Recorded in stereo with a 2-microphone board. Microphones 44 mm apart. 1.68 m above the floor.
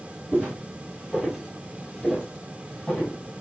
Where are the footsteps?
20° right (ahead or behind), 1.7 m; by 3.2 s 20° left (ahead or behind), 2 m.